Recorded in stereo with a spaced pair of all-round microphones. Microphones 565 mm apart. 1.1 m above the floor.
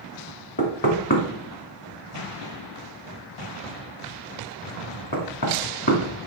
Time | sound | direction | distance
0.6 | knocking | 40° left (ahead or behind) | 2 m